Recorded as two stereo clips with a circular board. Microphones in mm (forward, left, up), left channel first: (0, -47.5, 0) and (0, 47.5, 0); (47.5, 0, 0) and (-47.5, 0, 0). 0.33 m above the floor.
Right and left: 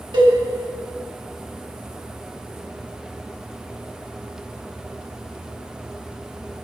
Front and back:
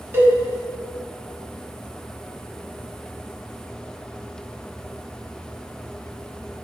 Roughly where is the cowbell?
Behind left.